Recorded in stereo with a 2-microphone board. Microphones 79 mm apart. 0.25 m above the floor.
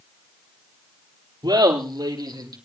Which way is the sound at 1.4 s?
75° right (ahead or behind).